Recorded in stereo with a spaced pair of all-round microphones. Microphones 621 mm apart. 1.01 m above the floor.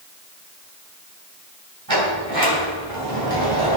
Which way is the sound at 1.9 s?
35° right (ahead or behind).